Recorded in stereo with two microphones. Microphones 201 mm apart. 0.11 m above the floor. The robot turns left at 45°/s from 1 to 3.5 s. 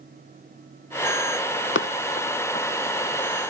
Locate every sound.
1.8 s running footsteps: 80° left, 0.5 m; by 3.3 s 20° left (ahead or behind), 1.5 m